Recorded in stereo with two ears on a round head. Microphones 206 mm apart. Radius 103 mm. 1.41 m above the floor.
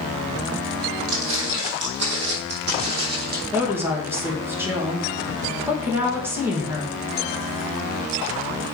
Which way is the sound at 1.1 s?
60° right (ahead or behind).